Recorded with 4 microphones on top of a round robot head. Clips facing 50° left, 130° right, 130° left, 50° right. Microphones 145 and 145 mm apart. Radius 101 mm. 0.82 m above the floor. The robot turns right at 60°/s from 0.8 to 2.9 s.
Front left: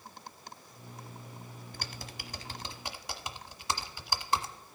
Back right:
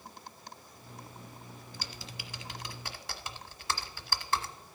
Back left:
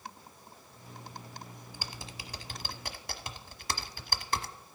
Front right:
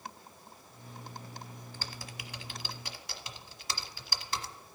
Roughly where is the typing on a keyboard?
Ahead left.